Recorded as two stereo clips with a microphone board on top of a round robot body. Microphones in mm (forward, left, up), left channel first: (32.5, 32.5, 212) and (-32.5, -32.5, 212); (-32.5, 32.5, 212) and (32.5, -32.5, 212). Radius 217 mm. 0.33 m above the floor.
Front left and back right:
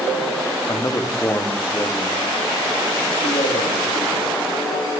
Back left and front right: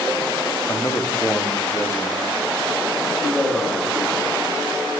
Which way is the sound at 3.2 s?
60° left.